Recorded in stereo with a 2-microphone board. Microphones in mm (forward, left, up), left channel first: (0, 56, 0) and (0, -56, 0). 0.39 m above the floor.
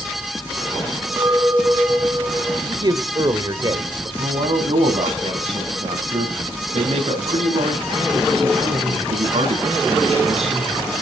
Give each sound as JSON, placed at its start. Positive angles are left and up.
{"t": 1.2, "sound": "a clink", "side_deg": -25, "distance_m": 2.5}
{"t": 2.7, "sound": "a man speaking", "side_deg": -40, "distance_m": 1.3}
{"t": 4.2, "sound": "a man speaking", "side_deg": -65, "distance_m": 3.5}